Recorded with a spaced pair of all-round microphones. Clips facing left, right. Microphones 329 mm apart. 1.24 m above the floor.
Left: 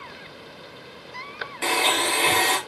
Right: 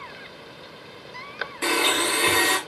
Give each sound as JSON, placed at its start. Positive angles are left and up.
{"t": 1.6, "sound": "a blender", "side_deg": -15, "distance_m": 0.8}